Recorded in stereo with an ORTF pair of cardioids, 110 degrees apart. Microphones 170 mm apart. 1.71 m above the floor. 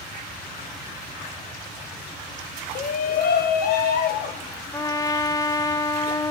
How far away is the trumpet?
About 1.0 m.